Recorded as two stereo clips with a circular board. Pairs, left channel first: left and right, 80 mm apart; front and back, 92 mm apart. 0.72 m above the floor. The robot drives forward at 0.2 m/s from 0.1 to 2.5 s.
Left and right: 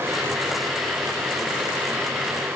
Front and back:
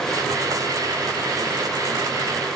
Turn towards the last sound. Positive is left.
No sound to turn to.